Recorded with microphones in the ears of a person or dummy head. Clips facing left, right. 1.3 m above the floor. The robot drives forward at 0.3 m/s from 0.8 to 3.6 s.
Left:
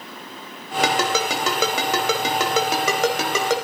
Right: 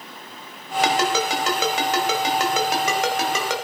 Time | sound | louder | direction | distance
0.8 | a ringtone | even | 80° left | 4.5 m